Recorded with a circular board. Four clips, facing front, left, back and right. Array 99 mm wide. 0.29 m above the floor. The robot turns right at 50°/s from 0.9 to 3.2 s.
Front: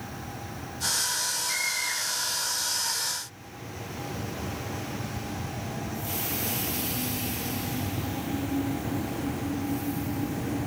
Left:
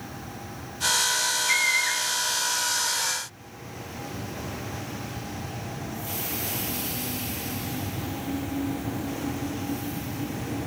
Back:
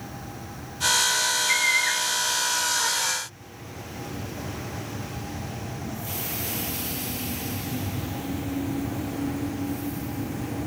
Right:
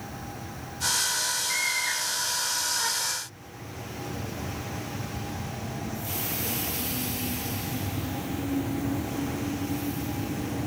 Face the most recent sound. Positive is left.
turn(degrees=-150)